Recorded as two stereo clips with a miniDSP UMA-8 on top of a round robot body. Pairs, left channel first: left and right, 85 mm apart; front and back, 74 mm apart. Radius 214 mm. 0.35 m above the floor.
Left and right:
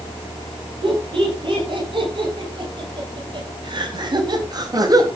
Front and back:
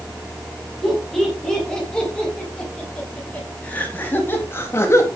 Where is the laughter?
85° right, 9 m; by 5.1 s 45° right, 4 m.